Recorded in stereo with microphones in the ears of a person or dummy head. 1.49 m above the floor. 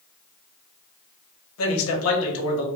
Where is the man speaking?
75° left (ahead or behind), 0.9 m.